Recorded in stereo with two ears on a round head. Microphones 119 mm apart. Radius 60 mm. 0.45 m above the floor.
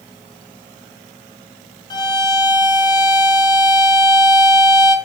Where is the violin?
35° left (ahead or behind), 2.5 m.